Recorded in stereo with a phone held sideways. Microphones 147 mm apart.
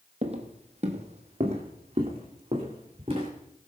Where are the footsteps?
45° right (ahead or behind), 1.6 m; by 3.3 s 40° right (ahead or behind), 4 m.